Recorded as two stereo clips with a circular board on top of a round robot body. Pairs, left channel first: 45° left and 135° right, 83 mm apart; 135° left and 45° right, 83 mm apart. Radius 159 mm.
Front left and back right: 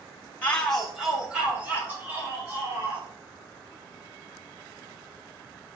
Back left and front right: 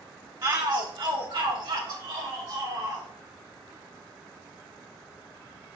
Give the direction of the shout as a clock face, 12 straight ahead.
1 o'clock.